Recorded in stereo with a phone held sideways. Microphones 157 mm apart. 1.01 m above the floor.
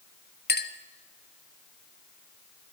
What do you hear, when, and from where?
0.5 s a clink: 80° left, 0.7 m